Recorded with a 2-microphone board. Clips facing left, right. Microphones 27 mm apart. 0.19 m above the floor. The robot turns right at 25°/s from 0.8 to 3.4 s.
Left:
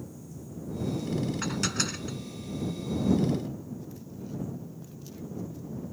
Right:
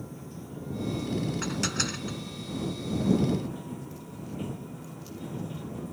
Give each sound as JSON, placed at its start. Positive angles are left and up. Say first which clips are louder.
{"t": 0.0, "sound": "running water", "louder": "right 2 dB", "azimuth_deg": -130}
{"t": 1.4, "sound": "dishes clattering", "louder": "even", "side_deg": 5}